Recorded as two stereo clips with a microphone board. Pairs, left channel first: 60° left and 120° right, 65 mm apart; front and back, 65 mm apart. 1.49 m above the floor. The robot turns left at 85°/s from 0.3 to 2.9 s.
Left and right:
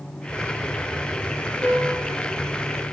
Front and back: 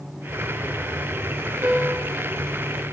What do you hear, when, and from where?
1.6 s a piano: 135° left, 1.8 m; by 2.1 s 90° left, 1.8 m